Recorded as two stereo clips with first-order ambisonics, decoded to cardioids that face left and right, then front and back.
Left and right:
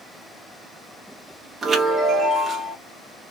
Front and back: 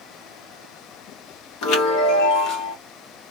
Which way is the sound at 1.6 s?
15° right.